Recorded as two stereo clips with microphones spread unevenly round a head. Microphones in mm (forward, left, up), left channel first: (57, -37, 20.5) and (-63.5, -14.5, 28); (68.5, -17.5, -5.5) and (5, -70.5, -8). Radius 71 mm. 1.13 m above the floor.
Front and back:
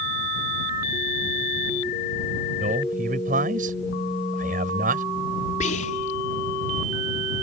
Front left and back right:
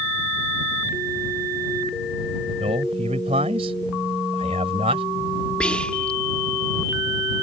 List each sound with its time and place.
2.6 s a man speaking: 175° right
5.6 s whispering: 35° right